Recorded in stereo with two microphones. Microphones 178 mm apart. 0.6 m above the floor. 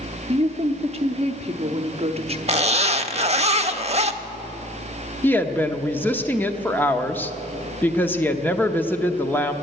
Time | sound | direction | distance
0.3 | a woman speaking | 35° right (ahead or behind) | 0.9 m
2.5 | a zipper | 35° right (ahead or behind) | 0.6 m
5.2 | a woman speaking | 10° left (ahead or behind) | 0.9 m